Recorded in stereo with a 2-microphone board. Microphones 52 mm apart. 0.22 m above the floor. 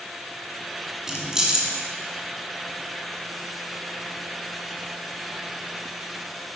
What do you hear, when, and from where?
1.1 s keys jangling: 10° right (ahead or behind), 1.8 m